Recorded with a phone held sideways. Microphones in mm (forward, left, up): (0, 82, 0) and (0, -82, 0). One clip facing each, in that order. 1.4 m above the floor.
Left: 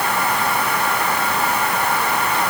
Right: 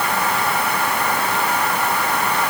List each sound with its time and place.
Only background noise.